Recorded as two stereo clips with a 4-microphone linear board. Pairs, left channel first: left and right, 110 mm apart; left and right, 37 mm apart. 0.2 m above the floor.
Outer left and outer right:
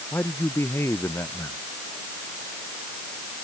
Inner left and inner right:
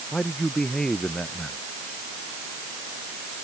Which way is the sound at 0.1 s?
20° left (ahead or behind).